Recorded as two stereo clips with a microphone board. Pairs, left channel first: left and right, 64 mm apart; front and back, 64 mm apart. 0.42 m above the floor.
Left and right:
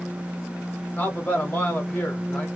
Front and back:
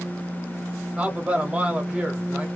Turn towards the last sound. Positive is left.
turn(degrees=125)